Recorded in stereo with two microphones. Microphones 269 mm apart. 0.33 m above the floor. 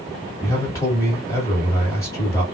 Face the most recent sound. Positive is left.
turn(degrees=10)  # may be behind; listen again after turning